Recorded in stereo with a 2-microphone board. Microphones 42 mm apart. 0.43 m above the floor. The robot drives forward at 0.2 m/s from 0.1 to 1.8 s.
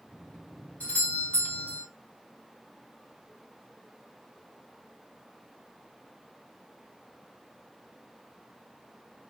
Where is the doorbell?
30° left (ahead or behind), 2.5 m.